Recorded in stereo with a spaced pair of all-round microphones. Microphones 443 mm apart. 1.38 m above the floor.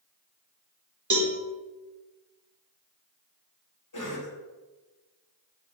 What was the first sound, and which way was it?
A cowbell, 40° right (ahead or behind).